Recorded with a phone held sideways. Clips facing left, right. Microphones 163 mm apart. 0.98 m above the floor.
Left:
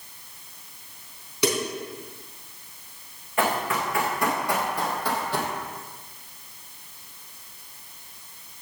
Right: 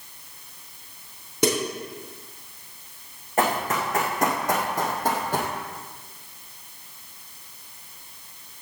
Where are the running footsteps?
40° right (ahead or behind), 3.5 m; by 5.5 s 45° right (ahead or behind), 1.9 m.